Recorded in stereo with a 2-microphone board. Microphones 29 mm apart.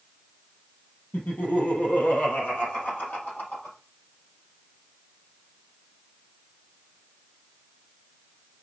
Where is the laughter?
70° left (ahead or behind), 3.5 m; by 3.8 s 65° left (ahead or behind), 4.5 m.